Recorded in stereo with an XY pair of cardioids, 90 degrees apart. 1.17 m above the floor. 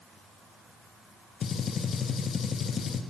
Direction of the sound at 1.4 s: 55° left.